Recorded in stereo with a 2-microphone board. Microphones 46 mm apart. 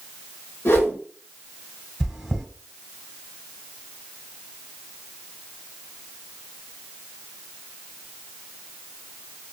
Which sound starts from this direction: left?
A whoosh, at 0.7 s.